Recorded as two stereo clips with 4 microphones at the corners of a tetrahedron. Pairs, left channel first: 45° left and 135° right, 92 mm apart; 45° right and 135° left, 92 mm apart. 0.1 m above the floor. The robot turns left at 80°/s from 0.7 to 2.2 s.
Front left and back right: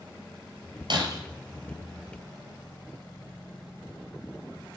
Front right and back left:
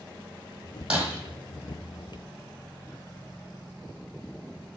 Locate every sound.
0.9 s breaking glass: 150° right, 1.2 m; by 1.2 s 170° right, 1.2 m